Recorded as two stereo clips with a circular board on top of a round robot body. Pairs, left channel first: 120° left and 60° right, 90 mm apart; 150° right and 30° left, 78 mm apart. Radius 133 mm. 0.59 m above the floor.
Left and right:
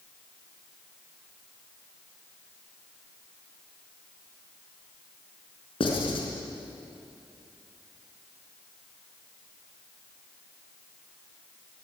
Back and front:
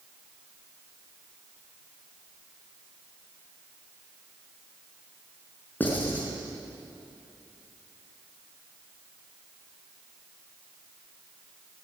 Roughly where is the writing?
Behind left.